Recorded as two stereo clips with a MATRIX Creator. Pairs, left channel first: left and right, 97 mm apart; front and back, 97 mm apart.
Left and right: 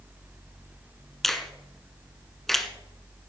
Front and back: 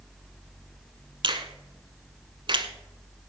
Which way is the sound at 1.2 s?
Straight behind.